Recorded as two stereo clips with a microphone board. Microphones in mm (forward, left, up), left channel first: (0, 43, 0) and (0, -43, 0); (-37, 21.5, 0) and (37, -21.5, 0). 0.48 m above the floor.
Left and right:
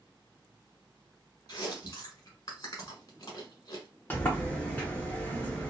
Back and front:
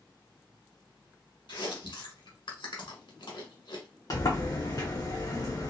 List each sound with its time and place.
1.5 s chewing: 135° left, 1.1 m
4.1 s a sliding door: 150° left, 1.0 m